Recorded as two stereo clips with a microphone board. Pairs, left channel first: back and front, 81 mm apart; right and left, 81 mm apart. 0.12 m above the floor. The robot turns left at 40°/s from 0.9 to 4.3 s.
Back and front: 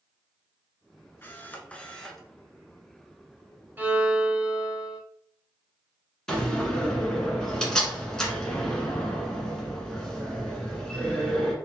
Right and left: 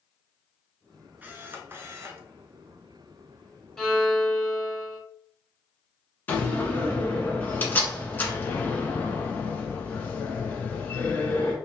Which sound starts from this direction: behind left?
A camera shutter, at 1.2 s.